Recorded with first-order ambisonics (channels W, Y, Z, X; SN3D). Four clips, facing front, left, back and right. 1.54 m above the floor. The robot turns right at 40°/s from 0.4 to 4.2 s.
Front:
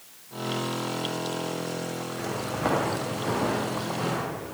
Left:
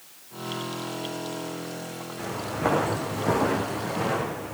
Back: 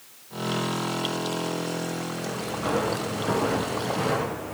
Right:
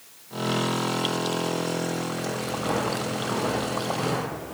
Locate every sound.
2.2 s footsteps: 30° left, 5 m; by 4.5 s 140° left, 6.5 m